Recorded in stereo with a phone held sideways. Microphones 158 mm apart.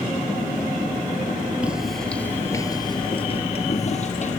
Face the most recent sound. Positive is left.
turn(degrees=50)  # may be behind; listen again after turning